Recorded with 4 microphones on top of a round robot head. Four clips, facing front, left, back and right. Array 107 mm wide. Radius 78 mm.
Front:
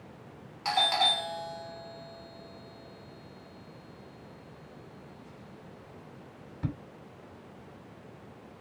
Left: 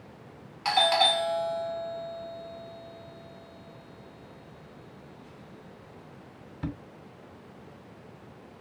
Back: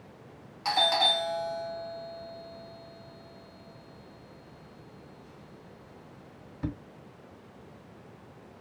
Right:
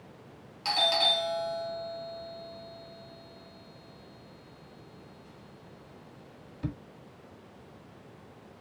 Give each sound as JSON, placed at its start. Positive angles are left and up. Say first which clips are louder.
{"t": 0.7, "sound": "a doorbell", "louder": "left 5 dB, back 1 dB", "azimuth_deg": 100, "distance_m": 1.9}